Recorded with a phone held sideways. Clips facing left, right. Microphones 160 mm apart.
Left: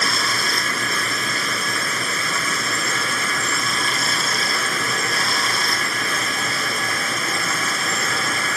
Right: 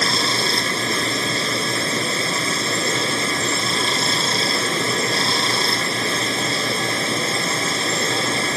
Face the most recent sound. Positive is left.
turn(degrees=-25)  # may be behind; listen again after turning